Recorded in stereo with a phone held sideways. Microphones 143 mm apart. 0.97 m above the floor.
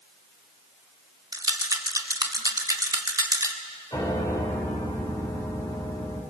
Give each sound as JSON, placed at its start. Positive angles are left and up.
{"t": 1.3, "sound": "a rattle", "side_deg": -25, "distance_m": 1.4}
{"t": 3.9, "sound": "a piano", "side_deg": 25, "distance_m": 2.5}